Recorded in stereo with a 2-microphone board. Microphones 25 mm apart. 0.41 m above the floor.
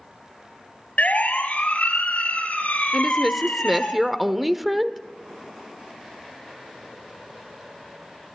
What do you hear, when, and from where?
1.0 s a siren: 65° left (ahead or behind), 3 m
2.9 s a woman speaking: 5° right (ahead or behind), 1.1 m